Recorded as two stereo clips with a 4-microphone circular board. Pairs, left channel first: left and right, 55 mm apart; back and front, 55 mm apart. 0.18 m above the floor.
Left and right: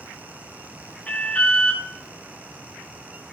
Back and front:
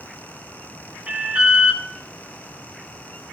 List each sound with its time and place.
1.1 s an alarm: 50° left, 2 m